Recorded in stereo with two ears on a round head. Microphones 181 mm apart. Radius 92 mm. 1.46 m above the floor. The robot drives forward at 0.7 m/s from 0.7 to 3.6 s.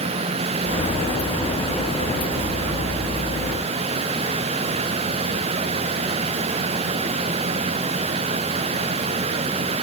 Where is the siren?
No siren in this recording.